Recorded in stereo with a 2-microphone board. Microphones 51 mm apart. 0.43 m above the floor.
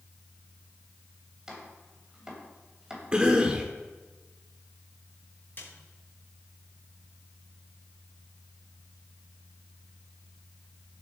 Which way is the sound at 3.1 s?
20° right (ahead or behind).